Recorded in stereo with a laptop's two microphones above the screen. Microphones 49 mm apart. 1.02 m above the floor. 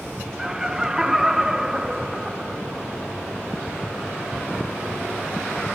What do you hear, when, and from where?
0.4 s laughter: 15° right (ahead or behind), 0.7 m